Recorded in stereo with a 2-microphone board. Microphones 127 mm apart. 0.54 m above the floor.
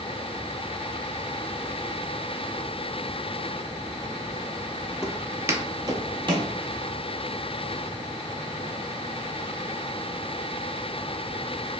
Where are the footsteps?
5° right (ahead or behind), 0.6 m; by 6.5 s 40° right (ahead or behind), 0.8 m.